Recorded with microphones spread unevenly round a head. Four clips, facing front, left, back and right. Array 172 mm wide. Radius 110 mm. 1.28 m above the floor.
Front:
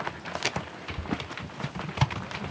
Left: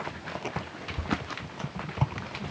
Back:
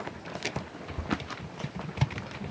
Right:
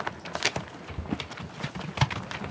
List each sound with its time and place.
Only background noise.